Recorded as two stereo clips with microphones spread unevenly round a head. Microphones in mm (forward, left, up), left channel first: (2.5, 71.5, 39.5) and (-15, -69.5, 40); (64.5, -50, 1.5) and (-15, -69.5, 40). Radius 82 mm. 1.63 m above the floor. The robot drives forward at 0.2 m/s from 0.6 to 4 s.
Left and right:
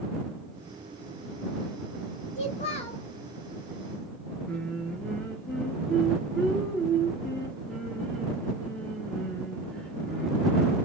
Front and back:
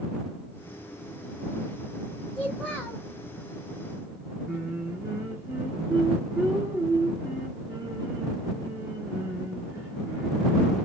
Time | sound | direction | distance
2.4 | a child speaking | 125° left | 1.0 m
4.5 | singing | 165° left | 0.8 m